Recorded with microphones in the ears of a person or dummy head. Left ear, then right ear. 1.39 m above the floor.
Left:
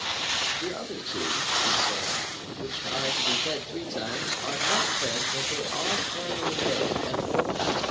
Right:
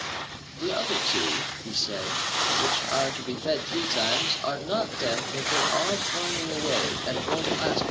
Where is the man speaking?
20° right (ahead or behind), 0.6 m.